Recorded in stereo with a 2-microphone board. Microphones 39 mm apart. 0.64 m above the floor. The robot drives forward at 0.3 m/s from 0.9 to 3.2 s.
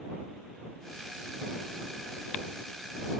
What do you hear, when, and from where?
Only background noise.